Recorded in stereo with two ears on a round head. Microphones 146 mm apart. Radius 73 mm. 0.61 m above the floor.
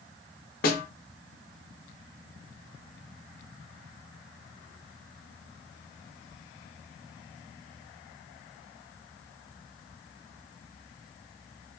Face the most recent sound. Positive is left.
turn(degrees=60)  # may be behind; listen again after turning